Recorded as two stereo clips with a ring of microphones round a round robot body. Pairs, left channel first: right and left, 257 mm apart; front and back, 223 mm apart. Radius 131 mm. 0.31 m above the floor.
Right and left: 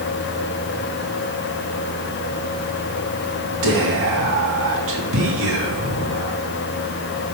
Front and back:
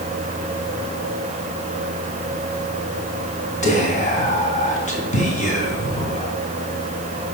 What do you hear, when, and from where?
3.6 s whispering: 55° left, 2.5 m